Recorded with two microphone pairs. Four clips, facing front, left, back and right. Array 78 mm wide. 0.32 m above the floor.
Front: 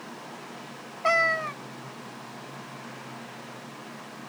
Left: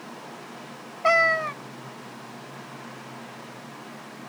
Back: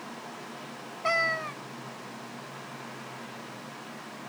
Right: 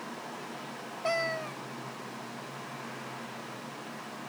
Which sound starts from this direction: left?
A cat meowing, at 1.0 s.